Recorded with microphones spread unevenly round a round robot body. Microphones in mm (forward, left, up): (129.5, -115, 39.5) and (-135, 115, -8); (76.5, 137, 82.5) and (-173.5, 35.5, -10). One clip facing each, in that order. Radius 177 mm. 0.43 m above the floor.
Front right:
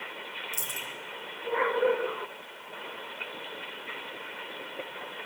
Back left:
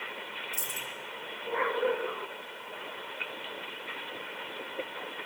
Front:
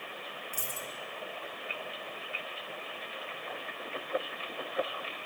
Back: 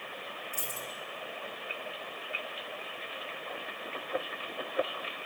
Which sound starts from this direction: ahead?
A dropped coin, at 0.5 s.